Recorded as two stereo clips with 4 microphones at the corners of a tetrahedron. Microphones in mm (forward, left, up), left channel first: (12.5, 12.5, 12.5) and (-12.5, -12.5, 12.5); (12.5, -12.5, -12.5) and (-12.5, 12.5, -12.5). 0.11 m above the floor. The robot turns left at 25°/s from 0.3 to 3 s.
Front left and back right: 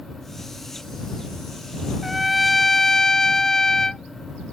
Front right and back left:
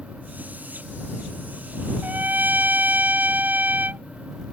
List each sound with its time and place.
2.0 s a trumpet: 140° left; by 4.0 s 120° left